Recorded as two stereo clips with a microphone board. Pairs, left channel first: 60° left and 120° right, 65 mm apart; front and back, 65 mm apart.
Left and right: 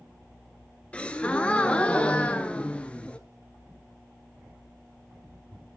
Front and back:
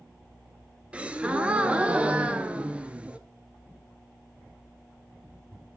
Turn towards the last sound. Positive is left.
turn(degrees=120)